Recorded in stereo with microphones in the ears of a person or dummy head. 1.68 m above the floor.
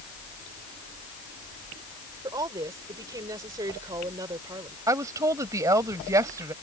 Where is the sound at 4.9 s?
20° right (ahead or behind).